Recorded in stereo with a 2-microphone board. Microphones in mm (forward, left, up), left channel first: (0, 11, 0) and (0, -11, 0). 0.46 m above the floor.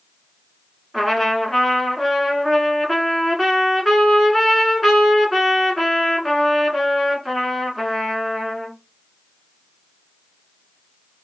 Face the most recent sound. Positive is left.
turn(degrees=5)  # may be behind; listen again after turning